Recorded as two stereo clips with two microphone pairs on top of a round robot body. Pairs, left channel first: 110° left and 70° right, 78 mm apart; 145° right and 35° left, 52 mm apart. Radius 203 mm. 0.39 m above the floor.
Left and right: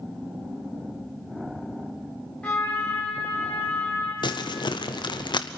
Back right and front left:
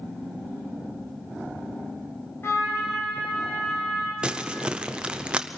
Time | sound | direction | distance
2.4 | a trumpet | straight behind | 3.5 m
4.2 | crumpling | 110° left | 0.9 m